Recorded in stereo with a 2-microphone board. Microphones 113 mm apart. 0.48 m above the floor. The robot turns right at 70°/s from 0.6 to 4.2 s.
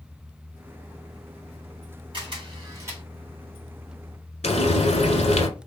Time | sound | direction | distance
2.1 | a camera shutter | 50° right (ahead or behind) | 1.7 m
4.4 | frying | 80° left | 1.2 m